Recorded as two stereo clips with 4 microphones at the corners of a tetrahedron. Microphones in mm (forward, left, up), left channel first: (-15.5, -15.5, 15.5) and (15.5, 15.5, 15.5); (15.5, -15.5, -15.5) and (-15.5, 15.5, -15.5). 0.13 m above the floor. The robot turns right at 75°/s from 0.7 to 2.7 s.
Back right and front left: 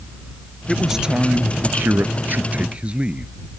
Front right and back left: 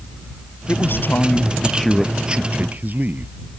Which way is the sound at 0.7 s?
50° right.